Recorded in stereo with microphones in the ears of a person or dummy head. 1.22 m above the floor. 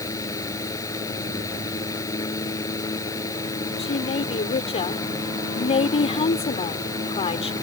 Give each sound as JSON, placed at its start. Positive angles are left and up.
{"t": 0.0, "sound": "a fan", "side_deg": 15}
{"t": 3.8, "sound": "a woman speaking", "side_deg": 30}